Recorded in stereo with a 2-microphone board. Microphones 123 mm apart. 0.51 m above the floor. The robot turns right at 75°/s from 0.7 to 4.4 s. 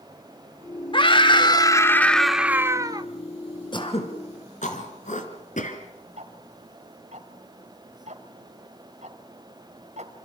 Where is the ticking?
70° right (ahead or behind), 2 m.